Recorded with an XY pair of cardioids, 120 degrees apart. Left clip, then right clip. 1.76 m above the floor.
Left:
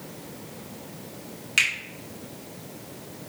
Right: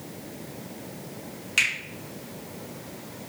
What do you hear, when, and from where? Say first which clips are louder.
1.6 s a finger snap: left 1 dB; 10° left, 1.6 m